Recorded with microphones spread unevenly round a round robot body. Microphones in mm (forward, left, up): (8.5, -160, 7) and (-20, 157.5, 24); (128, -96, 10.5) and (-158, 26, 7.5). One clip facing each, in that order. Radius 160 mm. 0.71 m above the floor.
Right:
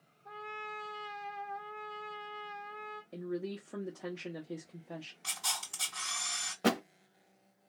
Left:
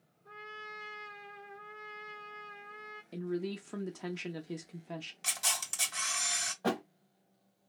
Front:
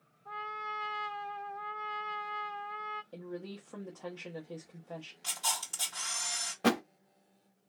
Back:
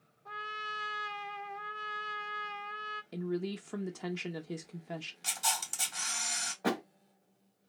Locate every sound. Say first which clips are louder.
0.2 s a trumpet: right 4 dB, front 2 dB; 165° right, 0.7 m
3.1 s a woman speaking: left 2 dB, back 8 dB; 145° left, 0.6 m
5.2 s a camera shutter: left 2 dB, back 2 dB; 85° left, 1.9 m
6.6 s a thud: right 3 dB, front 4 dB; 50° right, 0.7 m